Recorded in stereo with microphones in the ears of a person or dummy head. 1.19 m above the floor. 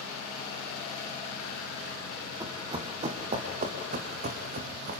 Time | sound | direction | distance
2.4 | running footsteps | 15° right (ahead or behind) | 2 m